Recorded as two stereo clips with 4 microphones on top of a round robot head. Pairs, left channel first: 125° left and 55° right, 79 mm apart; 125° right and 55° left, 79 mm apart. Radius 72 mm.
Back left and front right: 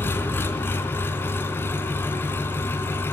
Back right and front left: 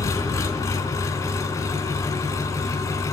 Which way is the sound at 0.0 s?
175° right.